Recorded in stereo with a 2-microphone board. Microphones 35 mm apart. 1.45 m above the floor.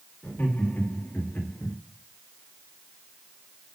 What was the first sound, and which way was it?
Laughter, 85° left.